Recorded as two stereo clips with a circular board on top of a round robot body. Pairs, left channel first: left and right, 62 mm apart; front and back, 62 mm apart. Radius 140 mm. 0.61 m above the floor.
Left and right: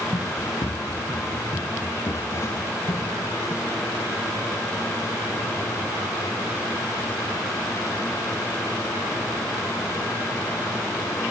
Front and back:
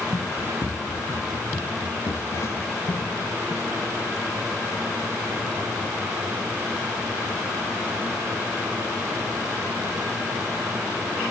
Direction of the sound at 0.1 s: 50° left.